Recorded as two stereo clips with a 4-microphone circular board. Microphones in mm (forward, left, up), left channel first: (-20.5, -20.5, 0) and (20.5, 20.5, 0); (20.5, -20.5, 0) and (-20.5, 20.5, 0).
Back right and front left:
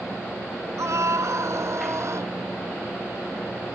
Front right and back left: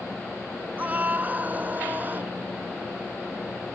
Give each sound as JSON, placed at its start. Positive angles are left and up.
{"t": 0.8, "sound": "a scream", "azimuth_deg": 75}